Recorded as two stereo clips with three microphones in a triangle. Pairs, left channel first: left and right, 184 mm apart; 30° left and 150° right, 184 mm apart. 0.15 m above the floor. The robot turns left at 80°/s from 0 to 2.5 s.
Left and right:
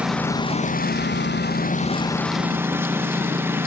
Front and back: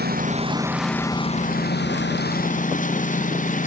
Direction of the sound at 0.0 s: 170° right.